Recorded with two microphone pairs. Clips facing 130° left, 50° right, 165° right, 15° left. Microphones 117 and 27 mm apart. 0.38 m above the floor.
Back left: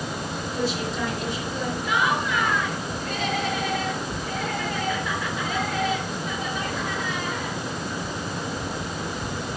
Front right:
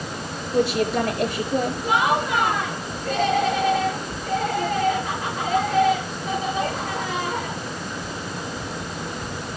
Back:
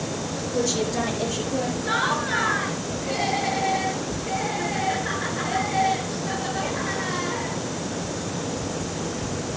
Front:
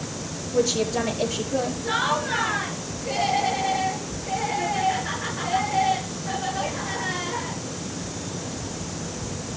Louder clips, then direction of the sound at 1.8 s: Front right 1 dB, back 1 dB; 90° right.